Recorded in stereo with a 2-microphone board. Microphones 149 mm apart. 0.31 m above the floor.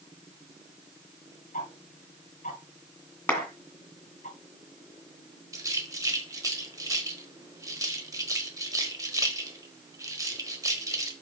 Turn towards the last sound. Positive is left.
turn(degrees=-20)  # may be behind; listen again after turning